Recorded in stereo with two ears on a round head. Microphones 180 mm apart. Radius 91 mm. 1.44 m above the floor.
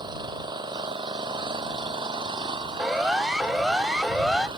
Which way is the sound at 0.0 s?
20° right (ahead or behind).